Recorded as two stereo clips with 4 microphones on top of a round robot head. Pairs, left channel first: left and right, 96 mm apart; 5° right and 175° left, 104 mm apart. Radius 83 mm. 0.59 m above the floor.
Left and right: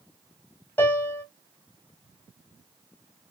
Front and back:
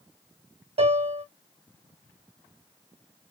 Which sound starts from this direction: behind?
A piano, at 0.8 s.